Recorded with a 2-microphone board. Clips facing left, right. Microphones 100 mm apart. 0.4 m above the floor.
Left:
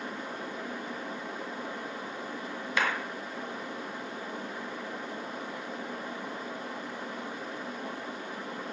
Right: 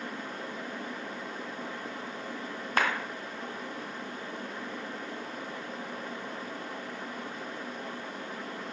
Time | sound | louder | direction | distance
2.8 | a clap | right 2 dB | 45° right (ahead or behind) | 2 m